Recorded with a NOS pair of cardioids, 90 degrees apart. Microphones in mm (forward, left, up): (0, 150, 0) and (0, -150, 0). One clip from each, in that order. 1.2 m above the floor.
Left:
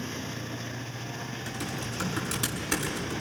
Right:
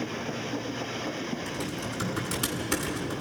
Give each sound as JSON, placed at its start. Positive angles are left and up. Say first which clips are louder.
{"t": 1.5, "sound": "typing on a keyboard", "louder": "right 1 dB", "azimuth_deg": 10, "distance_m": 7.0}